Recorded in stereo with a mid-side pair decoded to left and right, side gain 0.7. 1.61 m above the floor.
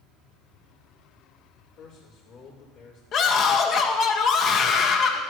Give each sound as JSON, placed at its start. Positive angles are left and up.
{"t": 1.8, "sound": "a man speaking", "azimuth_deg": 65, "distance_m": 4.5}
{"t": 3.1, "sound": "a scream", "azimuth_deg": 45, "distance_m": 1.7}